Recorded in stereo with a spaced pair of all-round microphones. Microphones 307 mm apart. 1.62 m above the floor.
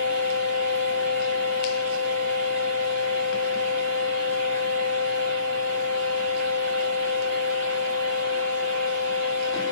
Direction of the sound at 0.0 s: 40° right (ahead or behind).